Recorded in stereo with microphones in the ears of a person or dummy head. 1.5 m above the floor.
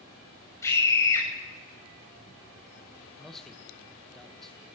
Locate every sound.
0.6 s a scream: 15° left (ahead or behind), 9 m
3.2 s a man speaking: centre (ahead or behind), 1.5 m